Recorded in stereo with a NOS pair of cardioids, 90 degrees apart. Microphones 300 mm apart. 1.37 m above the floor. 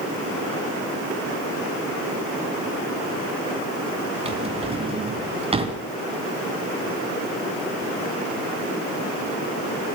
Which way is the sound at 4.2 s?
20° right.